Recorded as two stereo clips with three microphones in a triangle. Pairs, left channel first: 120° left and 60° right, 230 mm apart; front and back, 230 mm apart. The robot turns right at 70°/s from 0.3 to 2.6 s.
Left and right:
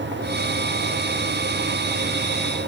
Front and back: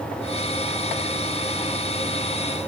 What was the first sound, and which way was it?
Only background noise.